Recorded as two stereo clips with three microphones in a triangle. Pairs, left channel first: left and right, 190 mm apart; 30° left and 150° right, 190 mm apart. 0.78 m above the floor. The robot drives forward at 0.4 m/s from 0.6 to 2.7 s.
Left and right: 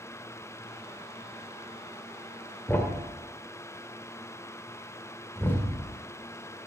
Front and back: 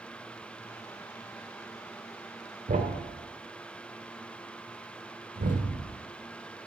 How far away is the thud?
About 1.3 m.